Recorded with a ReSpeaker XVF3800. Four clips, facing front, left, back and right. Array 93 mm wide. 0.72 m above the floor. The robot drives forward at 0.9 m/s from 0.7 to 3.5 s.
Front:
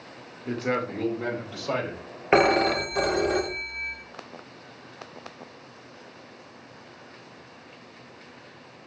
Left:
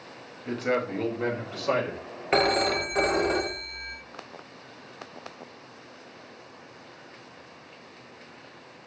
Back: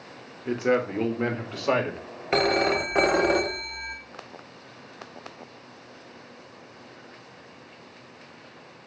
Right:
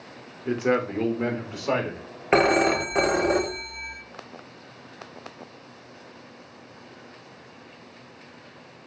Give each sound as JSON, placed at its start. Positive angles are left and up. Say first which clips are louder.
{"t": 0.5, "sound": "a man speaking", "louder": "right 4 dB, back 4 dB", "azimuth_deg": -130, "distance_m": 1.1}
{"t": 2.3, "sound": "a phone ringing", "louder": "right 4 dB, front 3 dB", "azimuth_deg": -35, "distance_m": 0.6}